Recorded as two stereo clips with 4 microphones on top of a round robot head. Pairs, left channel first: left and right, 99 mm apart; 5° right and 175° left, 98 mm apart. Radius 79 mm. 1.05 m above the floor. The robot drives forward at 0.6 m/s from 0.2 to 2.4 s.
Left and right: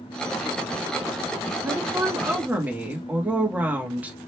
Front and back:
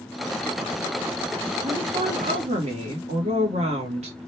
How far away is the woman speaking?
About 1.1 m.